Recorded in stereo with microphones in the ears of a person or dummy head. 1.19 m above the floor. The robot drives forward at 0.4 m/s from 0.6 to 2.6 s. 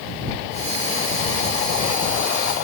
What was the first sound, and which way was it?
Only background noise.